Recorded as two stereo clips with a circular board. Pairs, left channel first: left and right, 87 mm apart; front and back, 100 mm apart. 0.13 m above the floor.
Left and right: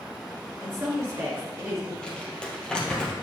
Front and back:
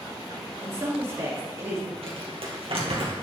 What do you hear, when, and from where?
0.6 s a woman speaking: 130° right, 2 m
2.0 s crumpling: 170° left, 2 m